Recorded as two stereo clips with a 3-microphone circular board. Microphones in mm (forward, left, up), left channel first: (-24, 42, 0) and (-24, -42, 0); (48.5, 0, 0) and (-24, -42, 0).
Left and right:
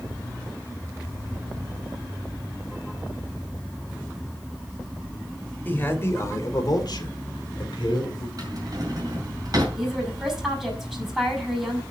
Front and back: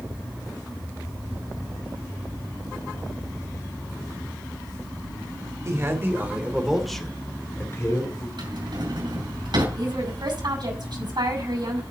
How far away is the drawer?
About 5 m.